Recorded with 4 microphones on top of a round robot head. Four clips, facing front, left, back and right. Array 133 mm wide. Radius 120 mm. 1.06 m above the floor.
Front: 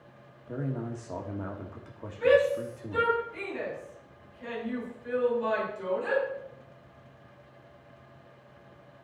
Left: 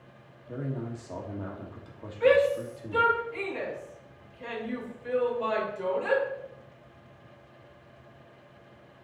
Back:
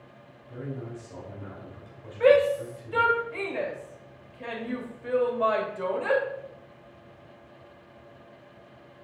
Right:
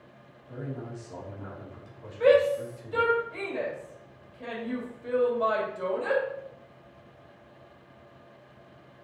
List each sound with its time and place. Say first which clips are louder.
0.5 s a man speaking: left 3 dB, front 3 dB; 25° left, 1.7 m
2.2 s a shout: right 1 dB, back 3 dB; 155° right, 3 m